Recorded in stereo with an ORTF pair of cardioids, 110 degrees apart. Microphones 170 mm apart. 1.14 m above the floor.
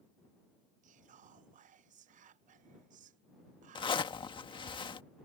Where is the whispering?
45° right.